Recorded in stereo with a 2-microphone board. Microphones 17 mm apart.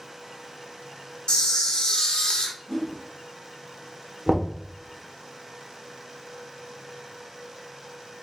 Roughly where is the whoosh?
Left.